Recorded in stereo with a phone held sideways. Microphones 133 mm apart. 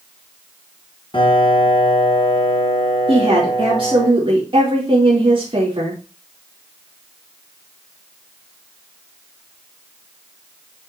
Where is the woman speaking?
40° right (ahead or behind), 2.5 m.